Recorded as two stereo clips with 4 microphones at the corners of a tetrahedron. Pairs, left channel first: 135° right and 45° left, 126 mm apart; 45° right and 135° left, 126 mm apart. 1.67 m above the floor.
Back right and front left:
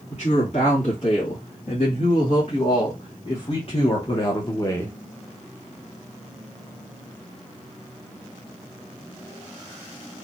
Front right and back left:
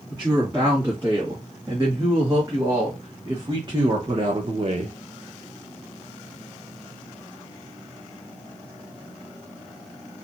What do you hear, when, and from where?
0.1 s a woman speaking: 150° right, 3 m; by 5.0 s 155° left, 0.9 m